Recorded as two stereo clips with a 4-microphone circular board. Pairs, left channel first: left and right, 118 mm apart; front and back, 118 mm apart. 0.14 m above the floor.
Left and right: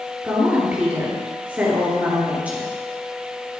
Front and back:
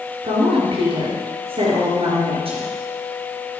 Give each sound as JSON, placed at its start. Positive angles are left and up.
{"t": 0.2, "sound": "a woman speaking", "azimuth_deg": -165, "distance_m": 2.5}